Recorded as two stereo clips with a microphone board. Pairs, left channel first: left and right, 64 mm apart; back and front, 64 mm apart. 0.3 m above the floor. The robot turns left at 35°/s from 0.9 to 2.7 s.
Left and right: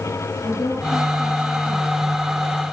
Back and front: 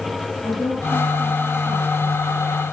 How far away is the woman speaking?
About 5 m.